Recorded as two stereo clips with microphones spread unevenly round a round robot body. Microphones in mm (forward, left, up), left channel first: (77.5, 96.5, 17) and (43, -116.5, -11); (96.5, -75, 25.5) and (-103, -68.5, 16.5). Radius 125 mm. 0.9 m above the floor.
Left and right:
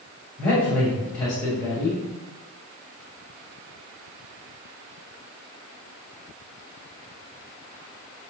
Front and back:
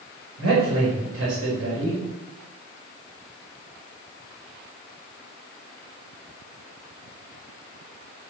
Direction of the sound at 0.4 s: 165° left.